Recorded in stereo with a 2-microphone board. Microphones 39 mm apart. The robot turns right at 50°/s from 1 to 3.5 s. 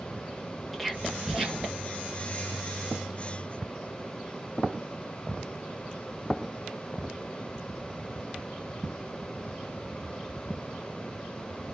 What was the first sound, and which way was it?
Whispering, centre (ahead or behind).